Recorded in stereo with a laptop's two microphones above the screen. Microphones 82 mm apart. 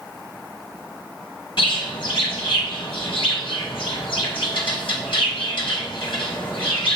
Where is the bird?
80° left, 0.9 m.